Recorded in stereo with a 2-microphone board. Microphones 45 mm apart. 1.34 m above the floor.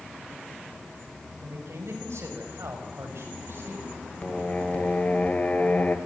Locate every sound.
1.4 s a man speaking: 85° right, 6 m; by 4.0 s 55° right (ahead or behind), 5.5 m
4.2 s singing: 35° left (ahead or behind), 1.5 m